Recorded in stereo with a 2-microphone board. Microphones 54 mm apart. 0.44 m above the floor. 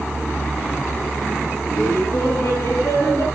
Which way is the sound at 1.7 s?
55° left (ahead or behind).